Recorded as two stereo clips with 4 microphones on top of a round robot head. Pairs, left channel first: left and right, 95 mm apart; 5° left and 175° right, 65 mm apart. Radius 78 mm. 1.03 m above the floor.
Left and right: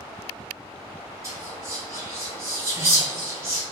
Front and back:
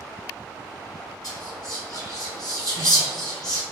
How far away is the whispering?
About 1.7 m.